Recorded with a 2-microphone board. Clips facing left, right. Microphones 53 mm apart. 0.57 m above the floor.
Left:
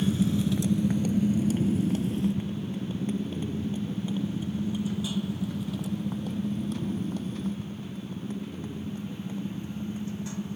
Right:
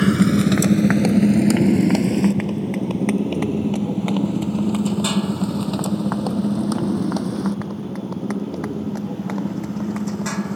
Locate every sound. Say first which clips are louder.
0.0 s a motorcycle: right 9 dB; 90° right; by 10.6 s 85° right